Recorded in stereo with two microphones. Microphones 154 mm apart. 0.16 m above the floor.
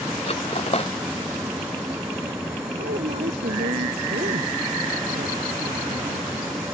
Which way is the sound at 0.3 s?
40° left (ahead or behind).